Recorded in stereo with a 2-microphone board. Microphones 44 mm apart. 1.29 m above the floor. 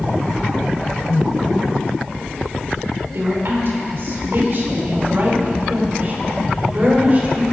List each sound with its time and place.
3.1 s a woman speaking: 70° right (ahead or behind), 4.5 m; by 7.4 s 35° right (ahead or behind), 4.5 m